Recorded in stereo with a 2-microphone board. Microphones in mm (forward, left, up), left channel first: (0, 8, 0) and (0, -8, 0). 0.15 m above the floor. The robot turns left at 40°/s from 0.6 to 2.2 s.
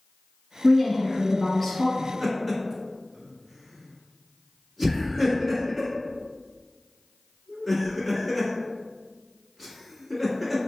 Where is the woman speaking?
10° right (ahead or behind), 1.5 m; by 1.9 s 10° left (ahead or behind), 1.5 m.